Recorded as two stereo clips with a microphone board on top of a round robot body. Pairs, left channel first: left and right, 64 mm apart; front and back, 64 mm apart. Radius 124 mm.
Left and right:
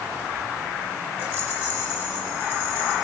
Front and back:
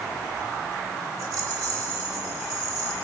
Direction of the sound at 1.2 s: 160° left.